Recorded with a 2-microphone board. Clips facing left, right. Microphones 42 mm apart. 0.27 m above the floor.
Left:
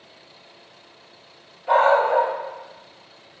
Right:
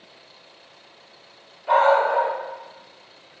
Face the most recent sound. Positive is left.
turn(degrees=-5)  # may be behind; listen again after turning